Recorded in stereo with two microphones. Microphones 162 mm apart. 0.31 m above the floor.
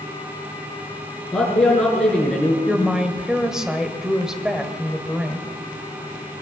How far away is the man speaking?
About 5.5 m.